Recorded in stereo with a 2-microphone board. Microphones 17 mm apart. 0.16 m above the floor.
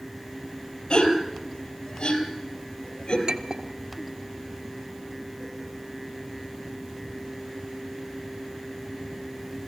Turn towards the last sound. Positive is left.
turn(degrees=-55)  # may be behind; listen again after turning